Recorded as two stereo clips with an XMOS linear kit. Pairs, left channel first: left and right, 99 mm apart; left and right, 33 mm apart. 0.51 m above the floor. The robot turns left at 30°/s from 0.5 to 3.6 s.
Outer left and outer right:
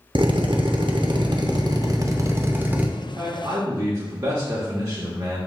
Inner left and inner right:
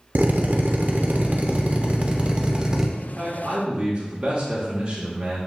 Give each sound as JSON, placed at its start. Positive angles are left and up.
{"t": 0.1, "sound": "a drill", "azimuth_deg": -90, "distance_m": 0.5}
{"t": 3.0, "sound": "a man speaking", "side_deg": -20, "distance_m": 0.9}